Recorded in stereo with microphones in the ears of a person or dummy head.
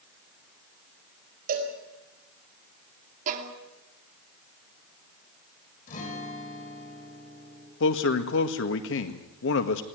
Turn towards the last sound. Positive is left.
turn(degrees=60)  # may be behind; listen again after turning